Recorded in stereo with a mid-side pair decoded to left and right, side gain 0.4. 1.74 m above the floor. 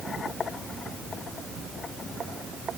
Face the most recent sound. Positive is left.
No sound to turn to.